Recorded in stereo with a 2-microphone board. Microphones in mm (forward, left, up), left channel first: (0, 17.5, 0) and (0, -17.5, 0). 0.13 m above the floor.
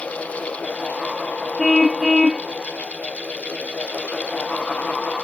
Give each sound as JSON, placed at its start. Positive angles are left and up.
{"t": 1.6, "sound": "a car horn", "side_deg": 10}